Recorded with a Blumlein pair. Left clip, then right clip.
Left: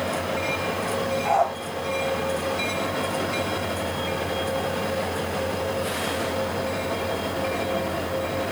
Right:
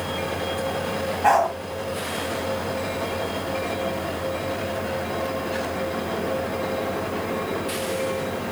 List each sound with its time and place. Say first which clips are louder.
1.2 s a dog barking: right 4 dB; 50° right, 4.5 m